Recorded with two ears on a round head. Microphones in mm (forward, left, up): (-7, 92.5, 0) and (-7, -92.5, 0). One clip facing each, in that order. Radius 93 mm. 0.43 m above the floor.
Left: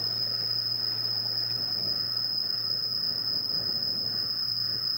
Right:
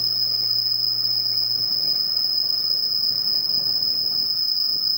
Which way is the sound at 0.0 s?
70° right (ahead or behind).